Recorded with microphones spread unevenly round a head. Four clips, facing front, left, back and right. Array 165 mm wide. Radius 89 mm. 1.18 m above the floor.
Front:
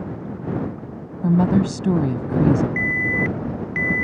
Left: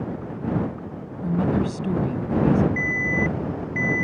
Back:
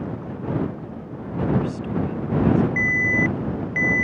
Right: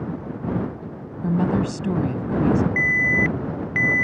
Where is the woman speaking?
5° right.